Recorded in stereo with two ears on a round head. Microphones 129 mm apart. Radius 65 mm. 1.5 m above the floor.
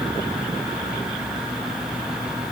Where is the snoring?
No snoring in this recording.